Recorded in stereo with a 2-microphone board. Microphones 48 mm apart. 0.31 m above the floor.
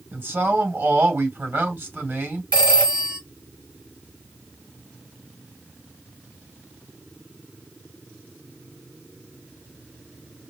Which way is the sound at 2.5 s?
25° right (ahead or behind).